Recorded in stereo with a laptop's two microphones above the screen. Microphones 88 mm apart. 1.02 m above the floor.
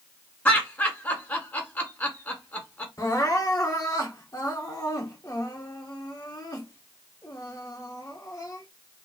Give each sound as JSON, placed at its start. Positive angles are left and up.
{"t": 0.5, "sound": "laughter", "side_deg": 25, "distance_m": 2.0}
{"t": 3.0, "sound": "crying", "side_deg": 40, "distance_m": 1.8}